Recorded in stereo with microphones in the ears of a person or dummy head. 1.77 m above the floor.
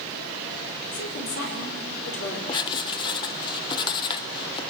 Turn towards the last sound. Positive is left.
turn(degrees=25)  # may be behind; listen again after turning